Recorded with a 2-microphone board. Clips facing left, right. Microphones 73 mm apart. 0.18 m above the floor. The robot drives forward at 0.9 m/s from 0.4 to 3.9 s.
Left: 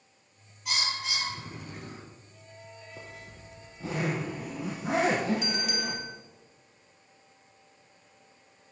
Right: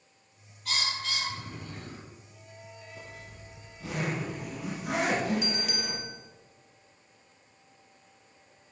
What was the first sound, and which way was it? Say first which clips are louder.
A bird: even; 10° left (ahead or behind).